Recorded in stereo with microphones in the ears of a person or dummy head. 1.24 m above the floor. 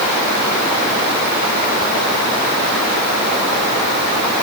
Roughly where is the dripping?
No dripping in this recording.